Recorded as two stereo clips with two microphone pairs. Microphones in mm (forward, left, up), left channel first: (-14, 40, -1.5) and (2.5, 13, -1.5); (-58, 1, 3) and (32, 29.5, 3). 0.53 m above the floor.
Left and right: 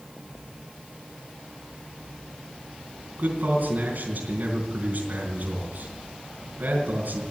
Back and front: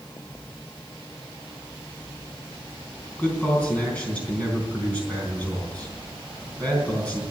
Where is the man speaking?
85° right, 4 m.